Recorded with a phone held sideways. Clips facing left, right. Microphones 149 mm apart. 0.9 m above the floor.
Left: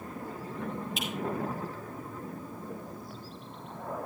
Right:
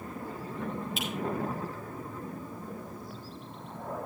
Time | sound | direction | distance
1.0 | a finger snap | centre (ahead or behind) | 7 m